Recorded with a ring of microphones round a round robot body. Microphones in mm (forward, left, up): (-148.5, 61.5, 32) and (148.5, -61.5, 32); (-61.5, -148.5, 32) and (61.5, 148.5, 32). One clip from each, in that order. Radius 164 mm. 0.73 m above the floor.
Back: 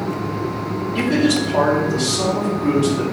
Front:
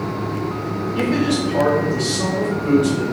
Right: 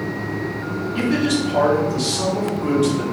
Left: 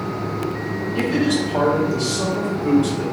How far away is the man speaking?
About 1.3 m.